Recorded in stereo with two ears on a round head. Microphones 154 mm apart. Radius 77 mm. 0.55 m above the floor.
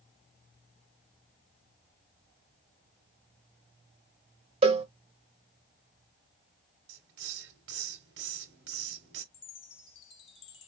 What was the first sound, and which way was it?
A cowbell, 35° right (ahead or behind).